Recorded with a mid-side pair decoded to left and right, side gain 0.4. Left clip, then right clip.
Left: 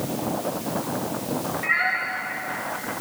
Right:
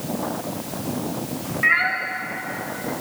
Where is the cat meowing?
60° right, 1.8 m.